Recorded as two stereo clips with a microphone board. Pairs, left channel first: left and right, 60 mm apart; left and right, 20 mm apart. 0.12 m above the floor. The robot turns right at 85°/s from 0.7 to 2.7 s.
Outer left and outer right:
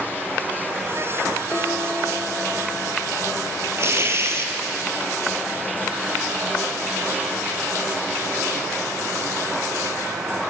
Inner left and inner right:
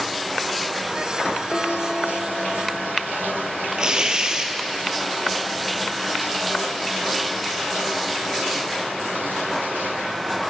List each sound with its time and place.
1.5 s dishes clattering: 25° left, 6.5 m; by 2.8 s 125° left, 6.5 m
3.8 s tearing paper: 45° right (ahead or behind), 2.5 m